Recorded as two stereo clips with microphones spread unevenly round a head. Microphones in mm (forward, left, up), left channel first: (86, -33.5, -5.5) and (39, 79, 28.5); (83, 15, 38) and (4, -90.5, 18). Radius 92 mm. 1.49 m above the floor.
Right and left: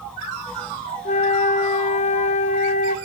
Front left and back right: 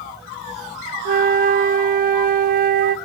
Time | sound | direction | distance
1.1 | a flute | 115° right | 1.1 m